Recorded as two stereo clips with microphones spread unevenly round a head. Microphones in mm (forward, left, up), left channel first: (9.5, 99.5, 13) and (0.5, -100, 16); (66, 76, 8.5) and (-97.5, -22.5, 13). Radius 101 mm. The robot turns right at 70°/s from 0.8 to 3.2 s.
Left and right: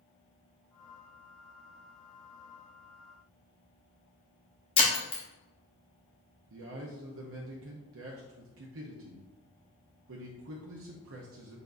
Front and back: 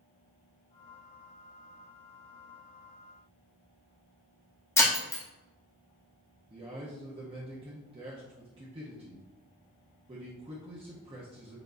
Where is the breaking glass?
95° left, 0.8 m.